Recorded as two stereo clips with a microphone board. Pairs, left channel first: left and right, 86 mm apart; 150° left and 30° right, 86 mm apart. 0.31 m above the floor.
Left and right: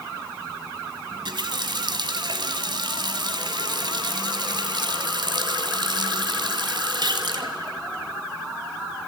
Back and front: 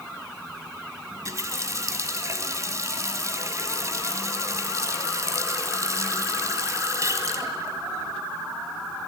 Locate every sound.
1.1 s a running tap: 80° right, 1.7 m